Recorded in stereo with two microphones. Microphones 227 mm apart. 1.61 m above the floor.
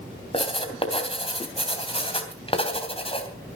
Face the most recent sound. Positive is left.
turn(degrees=25)  # may be behind; listen again after turning